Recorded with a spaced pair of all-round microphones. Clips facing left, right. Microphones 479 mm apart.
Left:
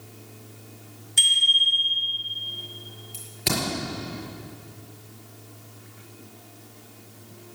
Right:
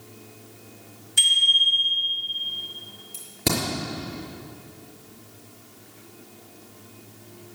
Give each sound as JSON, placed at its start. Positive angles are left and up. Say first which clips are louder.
{"t": 1.2, "sound": "a bicycle bell", "louder": "even", "side_deg": -30, "distance_m": 5.5}
{"t": 3.1, "sound": "a crack", "louder": "right 3 dB", "side_deg": -65, "distance_m": 5.5}